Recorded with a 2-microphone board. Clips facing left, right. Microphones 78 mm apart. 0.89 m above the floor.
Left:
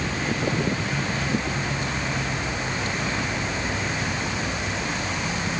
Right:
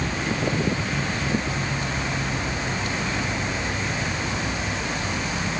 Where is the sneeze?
No sneeze in this recording.